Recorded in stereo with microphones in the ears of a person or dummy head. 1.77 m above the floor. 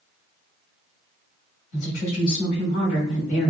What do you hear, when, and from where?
1.7 s a woman speaking: 60° left (ahead or behind), 1.2 m